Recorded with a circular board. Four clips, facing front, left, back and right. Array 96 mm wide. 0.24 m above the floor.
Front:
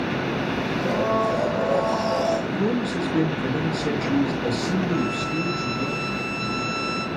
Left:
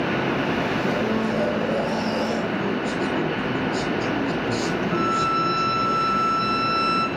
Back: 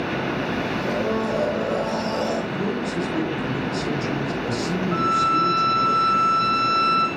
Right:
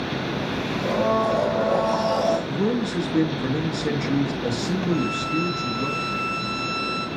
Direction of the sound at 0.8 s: 65° right.